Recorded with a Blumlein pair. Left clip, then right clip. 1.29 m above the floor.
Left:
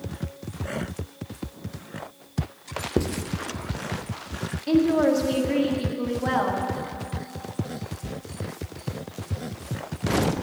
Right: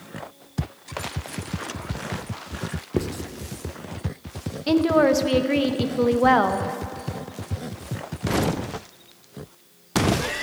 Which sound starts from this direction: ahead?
Writing, at 3.0 s.